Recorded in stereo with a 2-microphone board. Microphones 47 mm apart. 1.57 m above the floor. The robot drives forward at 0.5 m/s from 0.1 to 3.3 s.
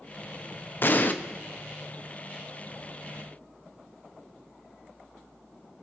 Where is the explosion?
45° left (ahead or behind), 0.6 m; by 1.1 s 40° left (ahead or behind), 0.7 m.